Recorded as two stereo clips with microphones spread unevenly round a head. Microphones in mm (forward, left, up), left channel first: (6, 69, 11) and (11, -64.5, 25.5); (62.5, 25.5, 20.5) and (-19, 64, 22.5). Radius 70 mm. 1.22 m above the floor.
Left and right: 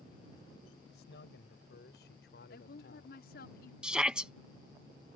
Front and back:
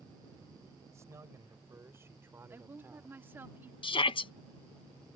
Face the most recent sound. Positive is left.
turn(degrees=-5)